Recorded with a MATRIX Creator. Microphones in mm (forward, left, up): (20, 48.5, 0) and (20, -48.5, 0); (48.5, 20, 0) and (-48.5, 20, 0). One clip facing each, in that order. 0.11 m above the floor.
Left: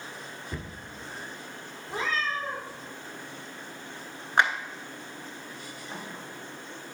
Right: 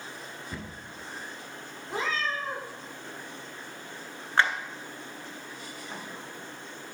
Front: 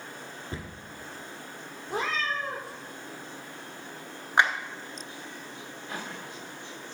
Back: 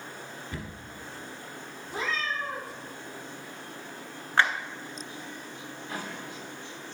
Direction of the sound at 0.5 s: Straight ahead.